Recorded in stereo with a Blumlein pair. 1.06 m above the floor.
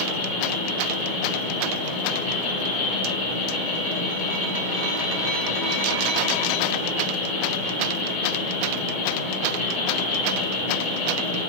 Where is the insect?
55° left, 7 m.